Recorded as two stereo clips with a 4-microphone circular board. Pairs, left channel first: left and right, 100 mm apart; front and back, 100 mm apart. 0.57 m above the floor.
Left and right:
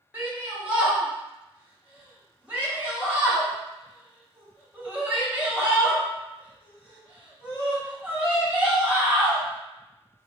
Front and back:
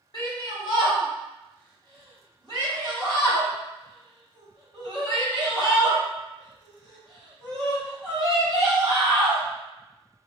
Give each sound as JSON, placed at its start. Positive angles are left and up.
{"t": 0.1, "sound": "a shout", "azimuth_deg": -20, "distance_m": 1.7}